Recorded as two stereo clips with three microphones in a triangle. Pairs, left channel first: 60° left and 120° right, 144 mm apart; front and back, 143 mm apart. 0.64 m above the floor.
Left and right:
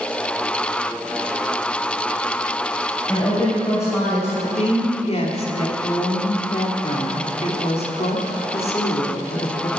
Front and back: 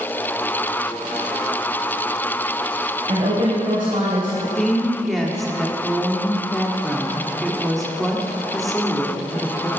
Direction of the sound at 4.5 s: 90° left.